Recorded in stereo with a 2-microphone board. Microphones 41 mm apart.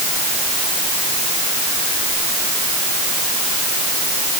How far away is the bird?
No bird in this recording.